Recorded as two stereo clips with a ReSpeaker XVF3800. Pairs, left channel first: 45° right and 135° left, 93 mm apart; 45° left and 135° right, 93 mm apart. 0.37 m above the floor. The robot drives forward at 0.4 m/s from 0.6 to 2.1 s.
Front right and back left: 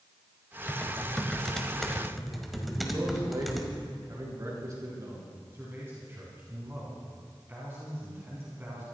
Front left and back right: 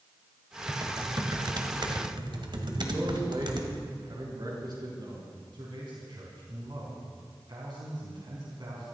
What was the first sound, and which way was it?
Typing on a keyboard, 115° right.